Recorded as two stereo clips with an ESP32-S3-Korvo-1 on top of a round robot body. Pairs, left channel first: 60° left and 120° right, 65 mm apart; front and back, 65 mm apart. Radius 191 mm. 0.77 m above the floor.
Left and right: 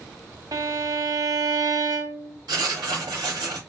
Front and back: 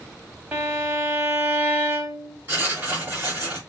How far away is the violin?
About 1.8 m.